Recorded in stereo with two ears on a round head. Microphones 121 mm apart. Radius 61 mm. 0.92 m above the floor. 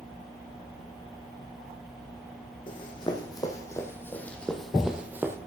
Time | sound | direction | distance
2.7 | running footsteps | 35° left (ahead or behind) | 2.5 m